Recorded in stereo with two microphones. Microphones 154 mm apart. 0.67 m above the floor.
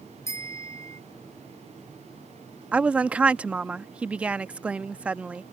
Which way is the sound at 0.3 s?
20° left (ahead or behind).